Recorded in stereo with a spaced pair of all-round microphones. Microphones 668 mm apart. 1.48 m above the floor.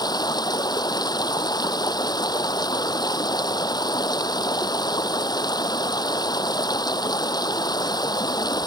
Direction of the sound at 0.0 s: 5° left (ahead or behind).